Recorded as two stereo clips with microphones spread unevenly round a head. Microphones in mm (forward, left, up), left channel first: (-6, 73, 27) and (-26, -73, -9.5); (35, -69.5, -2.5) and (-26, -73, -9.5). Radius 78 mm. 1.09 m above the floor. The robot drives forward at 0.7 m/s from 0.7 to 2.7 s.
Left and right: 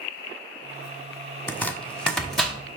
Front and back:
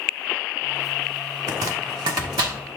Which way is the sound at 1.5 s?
140° left.